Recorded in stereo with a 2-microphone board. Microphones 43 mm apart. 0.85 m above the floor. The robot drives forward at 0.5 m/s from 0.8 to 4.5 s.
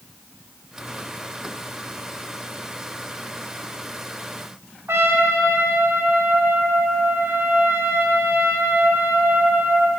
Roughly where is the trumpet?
Right.